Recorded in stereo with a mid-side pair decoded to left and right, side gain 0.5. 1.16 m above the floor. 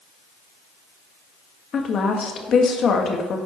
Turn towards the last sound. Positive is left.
turn(degrees=50)